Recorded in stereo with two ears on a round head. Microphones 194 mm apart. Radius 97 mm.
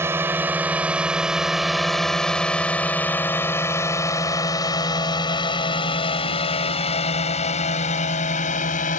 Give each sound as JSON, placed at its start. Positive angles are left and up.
{"t": 0.0, "sound": "a drone", "side_deg": -10}